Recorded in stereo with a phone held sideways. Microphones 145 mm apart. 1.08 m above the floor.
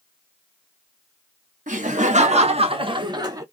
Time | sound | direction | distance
1.7 | laughter | 65° right (ahead or behind) | 1.1 m